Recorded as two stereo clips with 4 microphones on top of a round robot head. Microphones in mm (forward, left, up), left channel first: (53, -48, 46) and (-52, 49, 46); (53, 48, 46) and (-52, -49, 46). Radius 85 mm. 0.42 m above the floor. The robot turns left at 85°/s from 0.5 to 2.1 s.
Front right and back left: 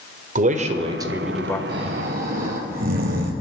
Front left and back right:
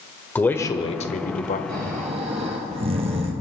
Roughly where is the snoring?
Behind right.